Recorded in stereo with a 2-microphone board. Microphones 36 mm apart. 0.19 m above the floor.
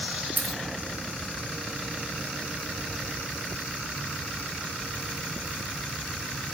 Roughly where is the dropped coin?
Right.